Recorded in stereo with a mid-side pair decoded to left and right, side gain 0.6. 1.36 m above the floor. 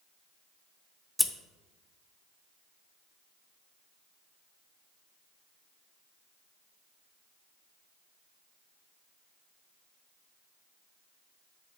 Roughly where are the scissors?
Ahead.